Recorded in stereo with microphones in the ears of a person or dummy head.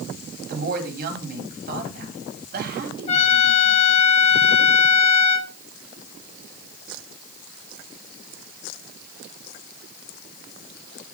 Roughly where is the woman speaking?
Right.